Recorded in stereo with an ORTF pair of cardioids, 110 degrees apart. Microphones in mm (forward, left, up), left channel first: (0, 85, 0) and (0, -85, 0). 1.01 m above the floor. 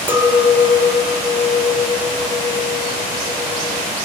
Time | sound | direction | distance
0.1 | a clink | 15° right | 0.7 m